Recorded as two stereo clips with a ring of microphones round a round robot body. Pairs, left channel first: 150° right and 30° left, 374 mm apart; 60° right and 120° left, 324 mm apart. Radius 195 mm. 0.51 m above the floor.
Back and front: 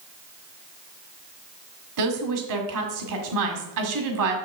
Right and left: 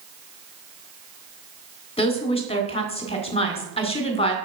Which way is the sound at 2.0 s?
10° left.